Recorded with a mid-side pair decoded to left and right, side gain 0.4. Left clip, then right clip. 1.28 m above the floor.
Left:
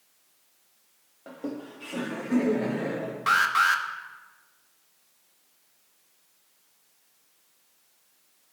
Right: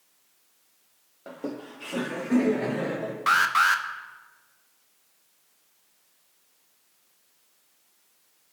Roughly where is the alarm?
Ahead right.